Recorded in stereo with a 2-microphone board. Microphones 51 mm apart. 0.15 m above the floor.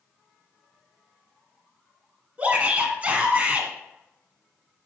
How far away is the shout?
About 1.2 m.